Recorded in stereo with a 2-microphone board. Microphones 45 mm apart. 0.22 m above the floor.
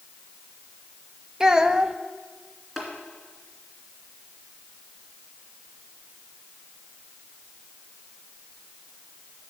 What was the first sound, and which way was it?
A child speaking, 15° right (ahead or behind).